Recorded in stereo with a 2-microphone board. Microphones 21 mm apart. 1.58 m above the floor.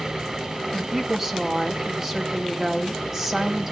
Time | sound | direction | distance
0.7 | a woman speaking | 20° right (ahead or behind) | 2.5 m